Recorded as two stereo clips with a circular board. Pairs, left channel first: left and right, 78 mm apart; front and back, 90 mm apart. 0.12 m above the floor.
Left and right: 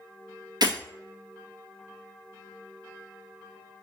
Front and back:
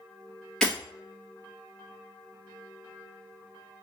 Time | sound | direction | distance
0.6 | breaking glass | 80° right | 1.5 m